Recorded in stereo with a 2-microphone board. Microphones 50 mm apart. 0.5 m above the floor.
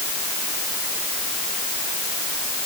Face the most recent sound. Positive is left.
No sound to turn to.